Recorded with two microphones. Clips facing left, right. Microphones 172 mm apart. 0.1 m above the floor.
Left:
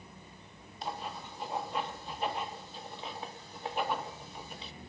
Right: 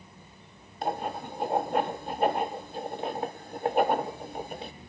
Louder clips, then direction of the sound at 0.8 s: Right 8 dB; 50° right (ahead or behind).